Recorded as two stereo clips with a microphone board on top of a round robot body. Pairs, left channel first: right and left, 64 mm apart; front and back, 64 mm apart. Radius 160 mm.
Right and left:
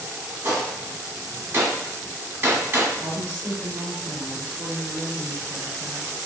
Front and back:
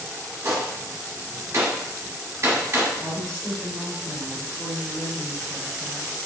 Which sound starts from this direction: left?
A woman speaking, at 3.0 s.